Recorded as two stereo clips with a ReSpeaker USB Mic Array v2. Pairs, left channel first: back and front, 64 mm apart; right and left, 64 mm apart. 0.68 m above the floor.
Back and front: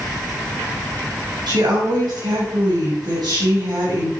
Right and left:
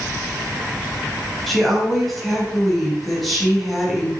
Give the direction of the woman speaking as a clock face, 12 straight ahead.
12 o'clock.